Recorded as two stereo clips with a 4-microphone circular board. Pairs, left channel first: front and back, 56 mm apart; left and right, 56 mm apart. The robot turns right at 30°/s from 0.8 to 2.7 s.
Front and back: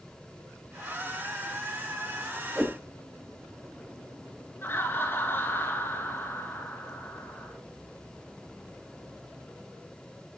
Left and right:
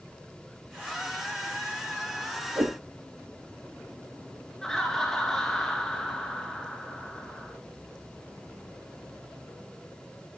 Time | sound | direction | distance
2.5 | a whoosh | 105° right | 3 m
4.6 | laughter | 10° left | 1.8 m